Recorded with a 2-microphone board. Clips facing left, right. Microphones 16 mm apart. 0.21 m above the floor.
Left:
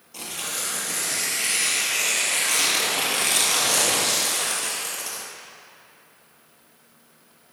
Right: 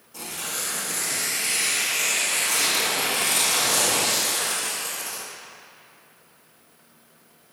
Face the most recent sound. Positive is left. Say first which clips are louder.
# left 1 dB
turn(degrees=40)  # may be behind; listen again after turning